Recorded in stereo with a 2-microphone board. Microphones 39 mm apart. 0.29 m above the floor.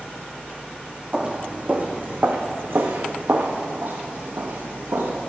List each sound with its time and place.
1.1 s footsteps: 25° right (ahead or behind), 1.2 m; by 5.2 s 85° right, 2.5 m